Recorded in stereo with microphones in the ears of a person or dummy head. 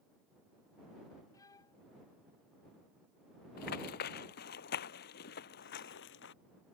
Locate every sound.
1.3 s a violin: 10° left (ahead or behind)
3.6 s running footsteps: 60° left (ahead or behind); by 6.3 s 70° left (ahead or behind)